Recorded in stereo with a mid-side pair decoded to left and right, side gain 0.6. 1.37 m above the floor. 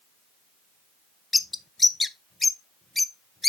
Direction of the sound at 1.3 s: 15° left.